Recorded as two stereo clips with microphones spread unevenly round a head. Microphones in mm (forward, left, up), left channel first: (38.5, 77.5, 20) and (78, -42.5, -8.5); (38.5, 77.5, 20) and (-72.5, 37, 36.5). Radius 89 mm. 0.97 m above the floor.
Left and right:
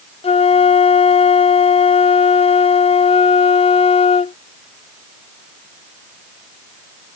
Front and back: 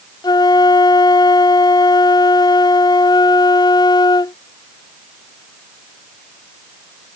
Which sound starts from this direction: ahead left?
A flute, at 0.2 s.